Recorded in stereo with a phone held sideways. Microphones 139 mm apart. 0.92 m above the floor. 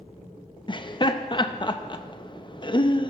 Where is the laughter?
35° left (ahead or behind), 0.7 m.